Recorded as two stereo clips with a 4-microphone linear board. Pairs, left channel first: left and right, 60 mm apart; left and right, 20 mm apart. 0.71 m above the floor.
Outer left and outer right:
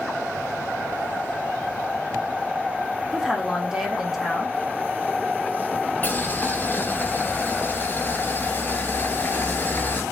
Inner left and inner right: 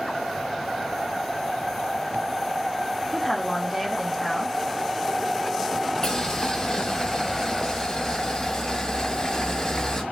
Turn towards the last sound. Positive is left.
turn(degrees=35)  # may be behind; listen again after turning